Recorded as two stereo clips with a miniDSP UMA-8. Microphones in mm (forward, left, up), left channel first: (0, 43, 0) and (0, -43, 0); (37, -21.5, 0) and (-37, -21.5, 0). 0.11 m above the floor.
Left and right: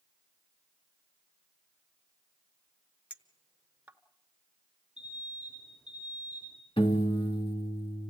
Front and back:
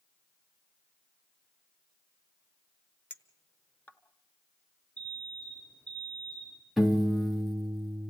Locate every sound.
3.1 s a clink: 45° right, 0.9 m
5.0 s an alarm: 70° left, 5.5 m
6.8 s a piano: 90° left, 2 m